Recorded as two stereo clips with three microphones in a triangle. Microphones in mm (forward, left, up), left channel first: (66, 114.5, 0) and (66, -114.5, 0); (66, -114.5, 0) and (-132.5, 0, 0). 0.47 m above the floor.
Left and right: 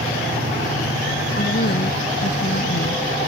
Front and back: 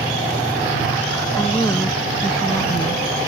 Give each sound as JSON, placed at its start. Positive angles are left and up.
{"t": 1.4, "sound": "a woman speaking", "azimuth_deg": 45}